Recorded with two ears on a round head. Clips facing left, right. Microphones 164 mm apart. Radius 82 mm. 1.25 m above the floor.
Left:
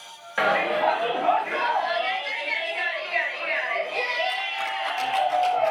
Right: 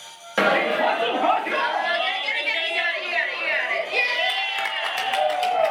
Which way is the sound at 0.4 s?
55° right (ahead or behind).